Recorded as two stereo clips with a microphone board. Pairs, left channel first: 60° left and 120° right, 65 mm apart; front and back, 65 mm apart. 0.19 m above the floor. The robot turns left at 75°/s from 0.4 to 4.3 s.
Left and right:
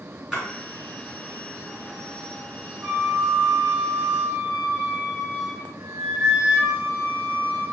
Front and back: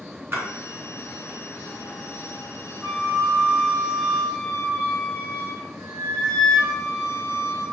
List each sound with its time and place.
0.3 s a splash: 165° left, 1.7 m; by 0.4 s 160° left, 1.7 m
2.8 s a flute: 20° right, 1.7 m; by 7.6 s 130° right, 1.7 m